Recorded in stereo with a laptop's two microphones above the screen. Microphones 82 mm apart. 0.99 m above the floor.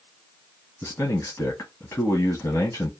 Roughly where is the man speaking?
Left.